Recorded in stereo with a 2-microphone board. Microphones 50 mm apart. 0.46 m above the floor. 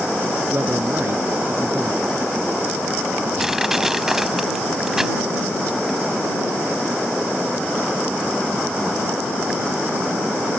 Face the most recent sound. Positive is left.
turn(degrees=-10)  # may be behind; listen again after turning